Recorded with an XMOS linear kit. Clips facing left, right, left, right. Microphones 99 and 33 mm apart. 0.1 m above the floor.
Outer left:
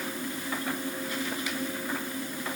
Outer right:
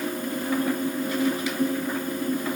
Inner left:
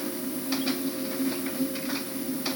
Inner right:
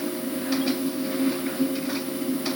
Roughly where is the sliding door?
No sliding door in this recording.